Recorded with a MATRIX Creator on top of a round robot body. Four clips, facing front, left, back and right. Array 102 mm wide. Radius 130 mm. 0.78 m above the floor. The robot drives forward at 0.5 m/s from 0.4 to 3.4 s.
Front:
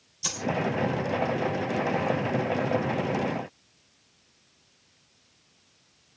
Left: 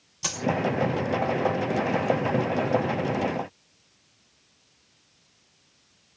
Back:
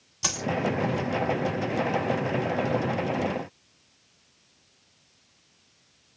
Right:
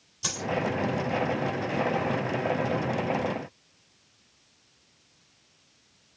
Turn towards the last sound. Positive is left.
turn(degrees=165)